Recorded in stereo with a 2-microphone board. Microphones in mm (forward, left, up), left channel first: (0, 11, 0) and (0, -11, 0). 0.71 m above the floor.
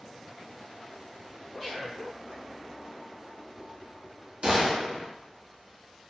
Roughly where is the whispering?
Centre.